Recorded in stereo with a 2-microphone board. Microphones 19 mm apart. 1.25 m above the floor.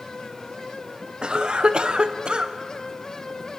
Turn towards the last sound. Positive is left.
turn(degrees=-45)  # may be behind; listen again after turning